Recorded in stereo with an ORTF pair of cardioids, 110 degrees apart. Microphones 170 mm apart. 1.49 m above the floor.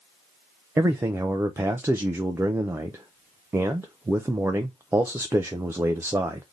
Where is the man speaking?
15° right, 0.5 m.